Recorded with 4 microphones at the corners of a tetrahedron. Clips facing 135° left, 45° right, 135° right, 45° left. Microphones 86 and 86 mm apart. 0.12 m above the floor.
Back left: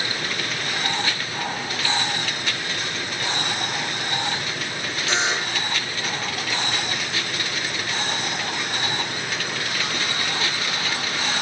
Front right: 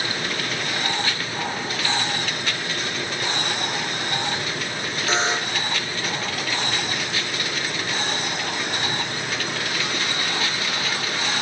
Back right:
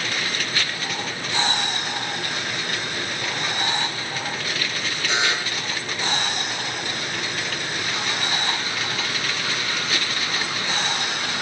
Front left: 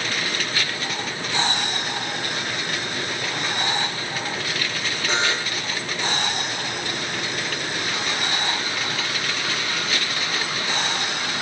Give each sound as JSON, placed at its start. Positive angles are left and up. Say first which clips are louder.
{"t": 5.1, "sound": "a buzzer", "louder": "front right 1 dB, even", "azimuth_deg": 5, "distance_m": 4.0}